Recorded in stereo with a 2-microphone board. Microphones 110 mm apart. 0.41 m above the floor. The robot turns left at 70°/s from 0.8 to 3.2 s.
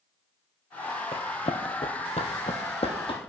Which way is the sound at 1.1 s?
55° left (ahead or behind).